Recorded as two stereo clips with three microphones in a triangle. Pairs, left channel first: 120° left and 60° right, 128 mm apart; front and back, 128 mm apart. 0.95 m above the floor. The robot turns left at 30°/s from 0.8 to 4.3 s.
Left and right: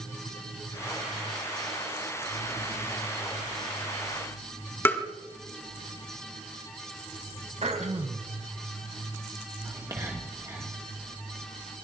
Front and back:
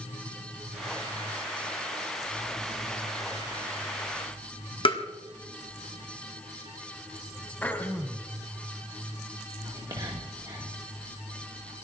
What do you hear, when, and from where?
4.8 s tapping: 45° left, 1.8 m
7.6 s throat clearing: 75° right, 1.4 m
9.7 s whispering: 125° right, 1.9 m